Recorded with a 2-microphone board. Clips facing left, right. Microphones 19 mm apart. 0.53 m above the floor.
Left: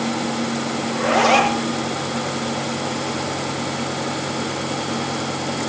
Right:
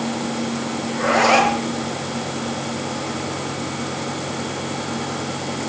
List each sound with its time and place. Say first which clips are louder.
0.8 s a zipper: even; 20° right (ahead or behind), 7 m